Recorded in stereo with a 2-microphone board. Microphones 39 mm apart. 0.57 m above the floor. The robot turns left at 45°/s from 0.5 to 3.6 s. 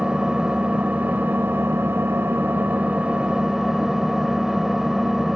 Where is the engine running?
25° right, 0.7 m; by 5.4 s 165° right, 0.7 m.